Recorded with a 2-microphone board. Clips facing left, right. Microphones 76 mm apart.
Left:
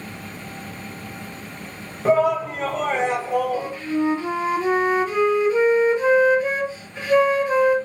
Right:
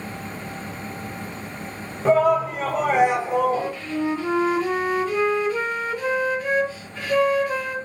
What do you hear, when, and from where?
2.0 s a shout: 5° left (ahead or behind), 1.3 m; by 3.7 s 30° right (ahead or behind), 0.8 m
3.5 s a flute: 20° left (ahead or behind), 1.0 m